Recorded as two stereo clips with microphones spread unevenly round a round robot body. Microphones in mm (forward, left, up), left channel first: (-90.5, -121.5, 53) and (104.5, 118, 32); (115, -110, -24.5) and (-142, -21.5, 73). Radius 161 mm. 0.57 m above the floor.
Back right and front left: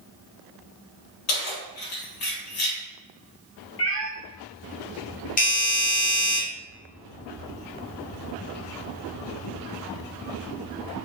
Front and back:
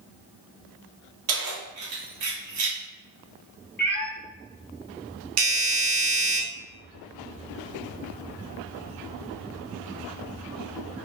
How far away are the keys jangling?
About 1.7 m.